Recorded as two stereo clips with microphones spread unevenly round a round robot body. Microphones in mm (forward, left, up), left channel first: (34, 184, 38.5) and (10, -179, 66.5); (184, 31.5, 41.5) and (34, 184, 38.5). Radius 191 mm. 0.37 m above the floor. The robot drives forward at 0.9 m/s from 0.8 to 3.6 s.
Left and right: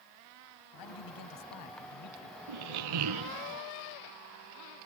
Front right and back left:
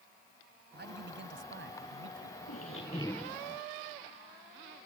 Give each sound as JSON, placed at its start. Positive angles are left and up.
{"t": 0.7, "sound": "a man speaking", "azimuth_deg": 105}
{"t": 2.5, "sound": "a squeak", "azimuth_deg": -85}